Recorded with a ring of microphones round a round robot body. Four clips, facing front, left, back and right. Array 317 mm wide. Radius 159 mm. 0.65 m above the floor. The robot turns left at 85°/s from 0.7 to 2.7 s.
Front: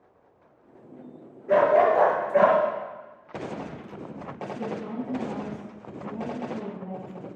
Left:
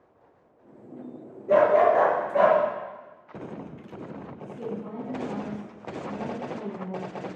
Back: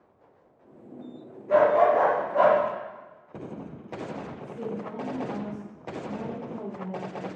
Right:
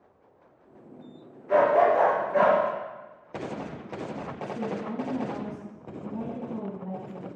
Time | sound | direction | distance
1.5 | a dog barking | 65° left | 5.5 m
4.4 | a woman speaking | 45° right | 4.5 m